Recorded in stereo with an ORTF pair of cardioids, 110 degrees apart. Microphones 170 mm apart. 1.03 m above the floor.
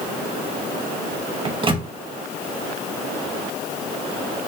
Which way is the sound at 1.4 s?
30° right.